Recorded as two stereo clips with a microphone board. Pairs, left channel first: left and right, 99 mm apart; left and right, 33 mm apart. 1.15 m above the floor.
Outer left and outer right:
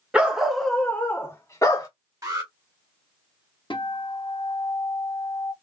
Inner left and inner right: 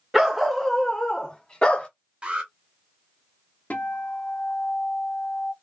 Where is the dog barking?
10° right (ahead or behind), 0.8 m; by 1.9 s 35° left (ahead or behind), 1.0 m.